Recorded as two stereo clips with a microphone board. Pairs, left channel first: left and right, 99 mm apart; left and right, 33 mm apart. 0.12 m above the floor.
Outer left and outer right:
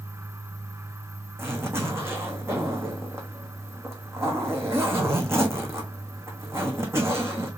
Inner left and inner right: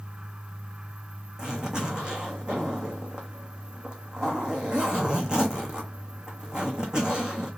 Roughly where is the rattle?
No rattle in this recording.